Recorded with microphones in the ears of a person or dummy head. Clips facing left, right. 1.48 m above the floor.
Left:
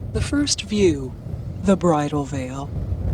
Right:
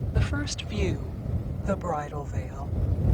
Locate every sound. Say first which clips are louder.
0.1 s a woman speaking: left 13 dB; 60° left (ahead or behind); by 2.7 s 75° left (ahead or behind)